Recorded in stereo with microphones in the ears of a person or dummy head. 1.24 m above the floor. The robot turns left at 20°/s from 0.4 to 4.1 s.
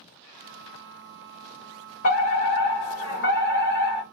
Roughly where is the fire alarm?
Behind left.